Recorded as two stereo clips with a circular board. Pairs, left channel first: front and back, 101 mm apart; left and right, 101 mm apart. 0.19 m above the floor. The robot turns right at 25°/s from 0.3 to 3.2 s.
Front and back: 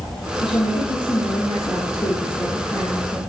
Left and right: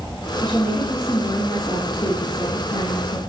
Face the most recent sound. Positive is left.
turn(degrees=80)